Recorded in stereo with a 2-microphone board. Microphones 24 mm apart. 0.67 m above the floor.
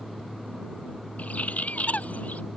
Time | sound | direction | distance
1.2 | a bird | 85° left | ?